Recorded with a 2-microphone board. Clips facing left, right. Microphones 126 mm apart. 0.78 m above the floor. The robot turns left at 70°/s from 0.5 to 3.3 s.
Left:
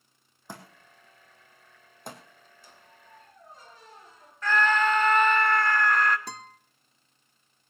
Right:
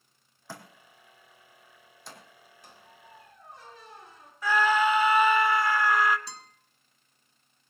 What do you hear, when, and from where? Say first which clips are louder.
0.5 s a thud: even; 15° left (ahead or behind), 3 m; by 2.2 s 40° left (ahead or behind), 3 m
2.6 s a squeak: right 3 dB; 65° right, 2.5 m; by 4.3 s 110° right, 2.5 m
4.4 s a scream: right 1 dB; 10° right (ahead or behind), 1.4 m
6.3 s a guitar: left 6 dB; 50° left (ahead or behind), 1.1 m